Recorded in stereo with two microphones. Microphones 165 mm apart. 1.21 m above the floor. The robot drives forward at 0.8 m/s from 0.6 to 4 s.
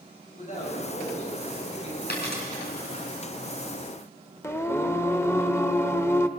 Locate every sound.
0.3 s a man speaking: 45° left (ahead or behind), 7.5 m; by 2.0 s 40° left (ahead or behind), 8 m
2.1 s a dropped coin: 85° left, 5.5 m; by 2.4 s 80° left, 5.5 m
4.4 s singing: 15° left (ahead or behind), 0.6 m